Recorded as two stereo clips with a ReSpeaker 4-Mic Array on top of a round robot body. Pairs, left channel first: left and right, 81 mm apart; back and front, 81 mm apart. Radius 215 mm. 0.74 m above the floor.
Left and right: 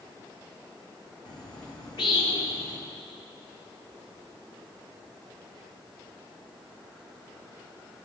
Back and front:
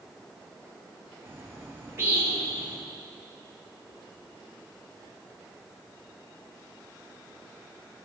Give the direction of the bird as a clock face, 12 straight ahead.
10 o'clock.